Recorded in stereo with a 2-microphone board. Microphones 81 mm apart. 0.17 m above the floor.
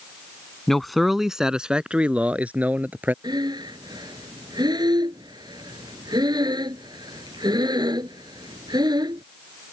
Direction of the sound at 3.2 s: 65° right (ahead or behind).